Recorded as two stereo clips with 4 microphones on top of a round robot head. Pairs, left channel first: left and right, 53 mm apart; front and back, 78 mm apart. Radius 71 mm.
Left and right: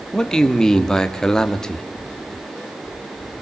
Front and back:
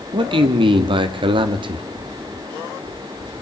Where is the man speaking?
170° left, 2 m.